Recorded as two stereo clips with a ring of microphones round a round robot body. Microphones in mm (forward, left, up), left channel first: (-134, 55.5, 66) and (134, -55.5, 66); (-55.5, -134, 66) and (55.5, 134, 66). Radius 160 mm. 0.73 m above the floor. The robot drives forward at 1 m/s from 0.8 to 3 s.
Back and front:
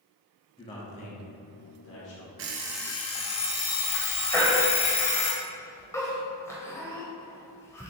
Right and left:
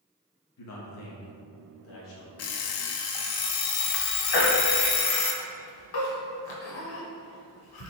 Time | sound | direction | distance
0.6 | a man speaking | 130° right | 1.1 m
2.4 | an alarm clock | 70° right | 0.6 m
4.3 | a baby crying | 120° right | 1.0 m